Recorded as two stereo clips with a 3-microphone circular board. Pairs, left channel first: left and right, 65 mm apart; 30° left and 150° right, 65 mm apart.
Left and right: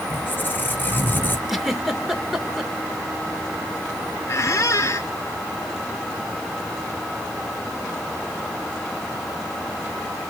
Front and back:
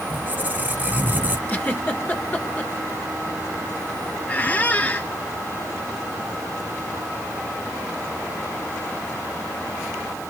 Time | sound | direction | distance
0.1 | a squeak | 145° left | 1.3 m
1.5 | a giggle | 10° right | 1.3 m
4.3 | a squeak | 85° left | 0.5 m